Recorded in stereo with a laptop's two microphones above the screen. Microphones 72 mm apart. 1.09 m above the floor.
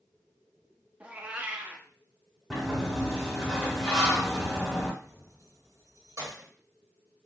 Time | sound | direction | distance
1.0 | a cat meowing | 20° right (ahead or behind) | 0.5 m
2.5 | a sliding door | centre (ahead or behind) | 1.4 m
5.0 | keys jangling | 45° right (ahead or behind) | 1.7 m